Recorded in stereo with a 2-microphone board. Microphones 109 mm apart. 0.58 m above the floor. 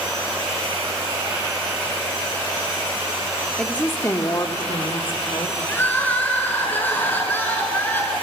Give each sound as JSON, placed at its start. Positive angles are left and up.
{"t": 3.6, "sound": "a woman speaking", "side_deg": 5, "distance_m": 1.2}
{"t": 5.7, "sound": "crying", "side_deg": 20, "distance_m": 4.0}